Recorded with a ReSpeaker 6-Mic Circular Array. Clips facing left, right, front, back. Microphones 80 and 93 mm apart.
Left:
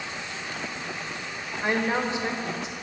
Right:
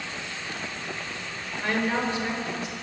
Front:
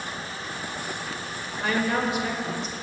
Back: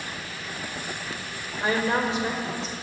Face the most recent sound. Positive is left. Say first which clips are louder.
# left 1 dB, back 1 dB
turn(degrees=145)